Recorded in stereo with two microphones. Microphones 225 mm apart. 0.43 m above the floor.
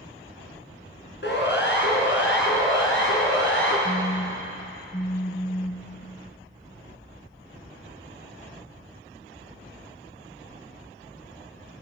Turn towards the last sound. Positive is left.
turn(degrees=30)  # may be behind; listen again after turning